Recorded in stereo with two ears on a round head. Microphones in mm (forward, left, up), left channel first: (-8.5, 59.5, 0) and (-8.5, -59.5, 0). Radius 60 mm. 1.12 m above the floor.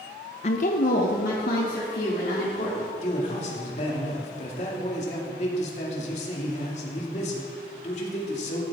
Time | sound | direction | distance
0.4 | a woman speaking | 45° left (ahead or behind) | 0.6 m
3.0 | a man speaking | 50° left (ahead or behind) | 2.5 m